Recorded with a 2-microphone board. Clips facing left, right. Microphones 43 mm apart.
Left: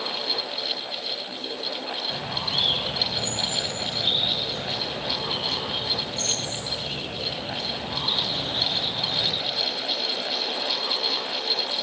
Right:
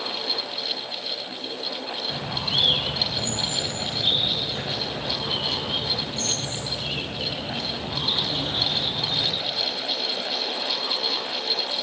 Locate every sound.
2.1 s a bird: 35° right (ahead or behind), 5 m